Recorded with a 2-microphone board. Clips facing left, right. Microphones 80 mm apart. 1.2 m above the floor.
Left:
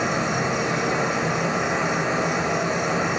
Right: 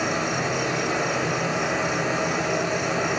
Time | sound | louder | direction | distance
0.0 | an insect | left 2 dB | 35° left (ahead or behind) | 1.2 m